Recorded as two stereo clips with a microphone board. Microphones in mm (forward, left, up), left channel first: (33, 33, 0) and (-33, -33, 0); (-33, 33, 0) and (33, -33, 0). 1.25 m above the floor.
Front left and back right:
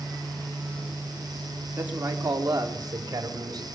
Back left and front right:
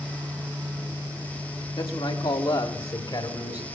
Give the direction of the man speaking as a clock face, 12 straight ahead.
7 o'clock.